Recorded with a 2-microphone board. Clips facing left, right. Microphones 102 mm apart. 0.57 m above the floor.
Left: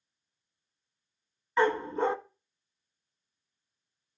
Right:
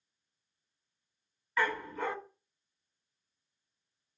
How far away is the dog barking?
About 1.0 m.